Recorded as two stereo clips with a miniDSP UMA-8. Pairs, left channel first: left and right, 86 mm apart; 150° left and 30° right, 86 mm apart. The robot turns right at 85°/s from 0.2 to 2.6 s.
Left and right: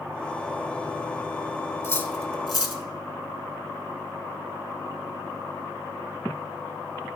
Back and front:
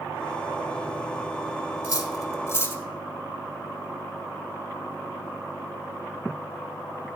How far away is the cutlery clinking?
About 1.0 m.